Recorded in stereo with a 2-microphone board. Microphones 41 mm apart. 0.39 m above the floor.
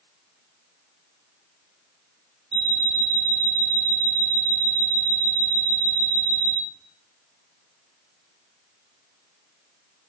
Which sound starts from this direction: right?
An alarm clock, at 2.5 s.